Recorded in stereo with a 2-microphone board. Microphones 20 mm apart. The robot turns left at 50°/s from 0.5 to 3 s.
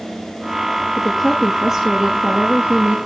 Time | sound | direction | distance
1.0 | a woman speaking | 15° left | 5.5 m